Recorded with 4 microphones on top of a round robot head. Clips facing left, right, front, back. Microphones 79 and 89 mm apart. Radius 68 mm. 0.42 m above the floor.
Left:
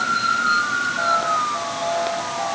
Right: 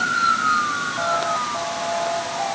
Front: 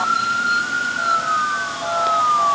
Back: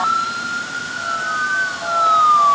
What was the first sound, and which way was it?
Only background noise.